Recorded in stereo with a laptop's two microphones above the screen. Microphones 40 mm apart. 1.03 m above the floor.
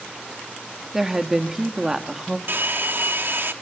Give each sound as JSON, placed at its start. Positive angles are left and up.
{"t": 0.9, "sound": "a woman speaking", "side_deg": -15, "distance_m": 1.9}
{"t": 2.5, "sound": "a hair dryer", "side_deg": -55, "distance_m": 1.1}